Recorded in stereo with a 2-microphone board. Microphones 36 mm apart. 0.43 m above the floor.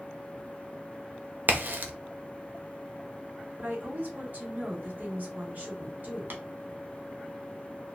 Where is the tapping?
60° right (ahead or behind), 1.0 m.